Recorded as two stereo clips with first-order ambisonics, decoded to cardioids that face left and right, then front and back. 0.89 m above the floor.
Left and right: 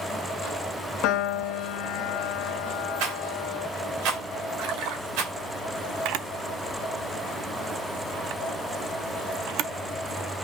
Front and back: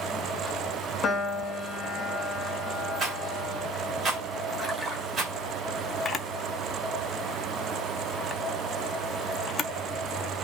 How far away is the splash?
About 1.5 m.